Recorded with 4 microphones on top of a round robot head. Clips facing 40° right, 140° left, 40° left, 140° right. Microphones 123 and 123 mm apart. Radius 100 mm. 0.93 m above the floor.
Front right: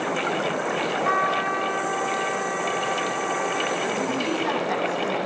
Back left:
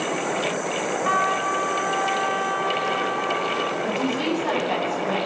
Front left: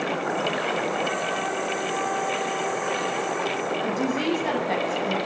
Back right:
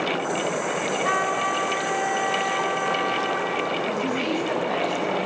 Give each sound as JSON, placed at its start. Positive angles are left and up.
{"t": 1.1, "sound": "a trumpet", "azimuth_deg": -135, "distance_m": 4.5}
{"t": 3.8, "sound": "a woman speaking", "azimuth_deg": 60, "distance_m": 9.0}